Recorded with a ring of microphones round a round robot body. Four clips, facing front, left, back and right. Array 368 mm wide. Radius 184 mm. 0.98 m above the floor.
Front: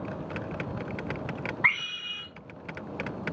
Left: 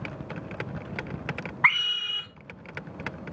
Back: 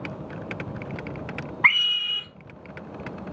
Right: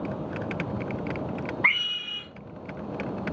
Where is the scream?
135° left, 2 m.